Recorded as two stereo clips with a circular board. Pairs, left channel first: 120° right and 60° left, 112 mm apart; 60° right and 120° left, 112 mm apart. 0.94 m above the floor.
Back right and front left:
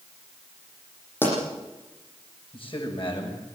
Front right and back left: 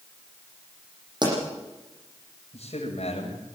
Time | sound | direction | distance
1.2 | a pop | 170° left | 10 m
2.5 | a man speaking | 80° right | 6 m